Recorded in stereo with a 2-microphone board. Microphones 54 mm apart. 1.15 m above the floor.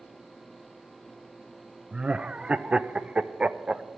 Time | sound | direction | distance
1.9 | laughter | 20° right (ahead or behind) | 0.6 m